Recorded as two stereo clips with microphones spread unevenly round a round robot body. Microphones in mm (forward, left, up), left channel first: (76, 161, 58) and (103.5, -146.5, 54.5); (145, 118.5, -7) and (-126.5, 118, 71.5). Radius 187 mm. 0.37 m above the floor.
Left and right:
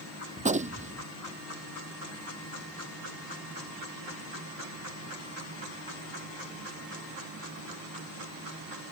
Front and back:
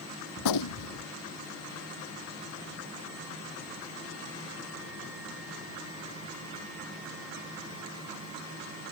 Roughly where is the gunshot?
Ahead.